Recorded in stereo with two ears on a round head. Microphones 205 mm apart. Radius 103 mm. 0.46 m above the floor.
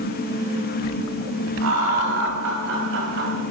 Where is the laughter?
70° right (ahead or behind), 3 m; by 3.4 s 50° right (ahead or behind), 2.5 m.